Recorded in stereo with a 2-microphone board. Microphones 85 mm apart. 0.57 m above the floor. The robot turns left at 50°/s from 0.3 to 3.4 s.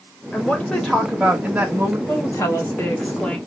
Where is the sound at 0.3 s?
35° left, 0.7 m; by 2.0 s 45° right, 0.7 m.